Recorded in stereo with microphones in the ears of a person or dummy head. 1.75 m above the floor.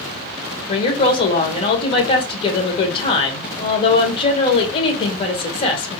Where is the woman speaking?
30° left (ahead or behind), 1.1 m.